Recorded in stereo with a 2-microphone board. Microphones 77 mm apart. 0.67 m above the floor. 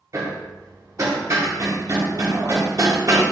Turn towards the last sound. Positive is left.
turn(degrees=-45)  # may be behind; listen again after turning